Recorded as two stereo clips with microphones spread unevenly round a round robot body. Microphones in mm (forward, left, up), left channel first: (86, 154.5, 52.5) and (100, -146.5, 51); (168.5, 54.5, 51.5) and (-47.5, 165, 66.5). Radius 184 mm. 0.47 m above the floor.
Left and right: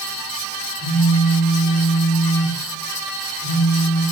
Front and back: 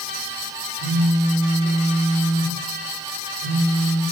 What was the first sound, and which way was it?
A phone buzzing, 125° left.